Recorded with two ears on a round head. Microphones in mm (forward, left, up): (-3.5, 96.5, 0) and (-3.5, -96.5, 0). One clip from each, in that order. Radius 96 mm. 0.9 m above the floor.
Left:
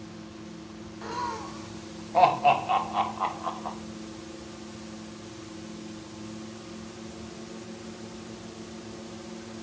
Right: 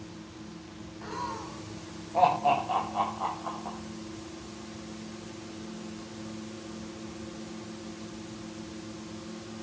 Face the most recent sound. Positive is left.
turn(degrees=75)  # may be behind; listen again after turning